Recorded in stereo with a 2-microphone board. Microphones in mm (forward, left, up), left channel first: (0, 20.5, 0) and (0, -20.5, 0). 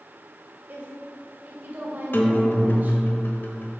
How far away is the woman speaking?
About 2 m.